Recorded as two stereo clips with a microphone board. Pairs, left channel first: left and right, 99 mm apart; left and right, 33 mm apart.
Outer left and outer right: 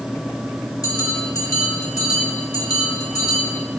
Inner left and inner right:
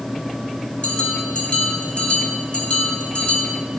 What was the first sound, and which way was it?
A bell, 40° left (ahead or behind).